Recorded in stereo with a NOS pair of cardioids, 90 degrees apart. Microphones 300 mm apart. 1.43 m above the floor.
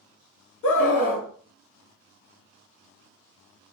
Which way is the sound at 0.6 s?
70° left.